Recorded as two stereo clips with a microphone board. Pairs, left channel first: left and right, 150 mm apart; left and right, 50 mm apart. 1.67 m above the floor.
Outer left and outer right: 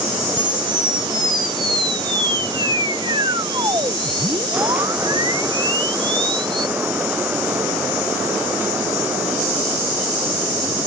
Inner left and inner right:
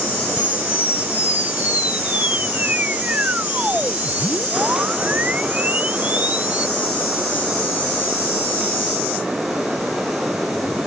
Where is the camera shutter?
30° right (ahead or behind).